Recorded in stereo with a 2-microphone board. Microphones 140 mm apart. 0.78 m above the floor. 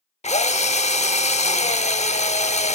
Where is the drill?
50° left (ahead or behind), 0.7 m.